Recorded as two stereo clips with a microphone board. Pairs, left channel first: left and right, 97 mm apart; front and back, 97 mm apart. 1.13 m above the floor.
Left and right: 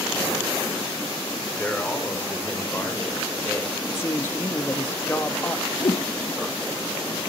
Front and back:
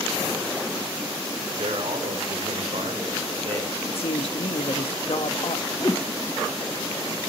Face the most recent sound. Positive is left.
turn(degrees=60)